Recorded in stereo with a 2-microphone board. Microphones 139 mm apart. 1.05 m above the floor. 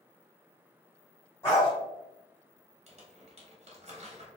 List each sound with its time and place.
1.4 s a dog barking: 20° left (ahead or behind), 1.5 m
2.9 s crumpling: 50° right (ahead or behind), 0.8 m